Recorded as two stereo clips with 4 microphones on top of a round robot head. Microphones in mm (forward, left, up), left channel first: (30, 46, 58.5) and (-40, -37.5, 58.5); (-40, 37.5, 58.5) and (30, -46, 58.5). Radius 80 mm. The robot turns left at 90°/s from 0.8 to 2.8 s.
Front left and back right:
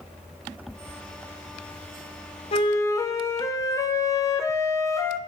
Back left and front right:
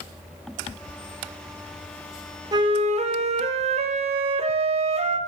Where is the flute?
10° left, 0.9 m; by 5.2 s 15° right, 0.9 m.